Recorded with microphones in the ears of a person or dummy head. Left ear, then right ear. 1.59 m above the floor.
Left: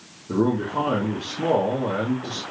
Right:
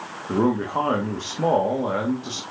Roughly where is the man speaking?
Right.